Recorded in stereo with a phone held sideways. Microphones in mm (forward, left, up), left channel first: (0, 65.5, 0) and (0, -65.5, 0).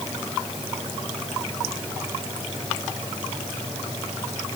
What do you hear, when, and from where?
Only background noise.